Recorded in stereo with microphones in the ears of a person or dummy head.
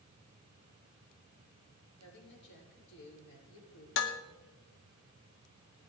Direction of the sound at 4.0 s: 65° left (ahead or behind).